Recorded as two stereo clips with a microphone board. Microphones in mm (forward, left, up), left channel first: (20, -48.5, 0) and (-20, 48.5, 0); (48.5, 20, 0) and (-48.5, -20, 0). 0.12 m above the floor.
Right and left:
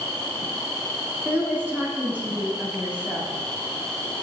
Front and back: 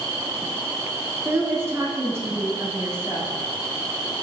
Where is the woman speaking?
165° left, 1.2 m.